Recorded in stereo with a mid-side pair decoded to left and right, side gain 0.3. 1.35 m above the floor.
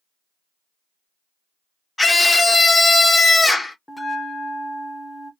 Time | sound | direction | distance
2.0 | a scream | 30° left | 1.7 m
3.9 | a bell | 15° left | 1.3 m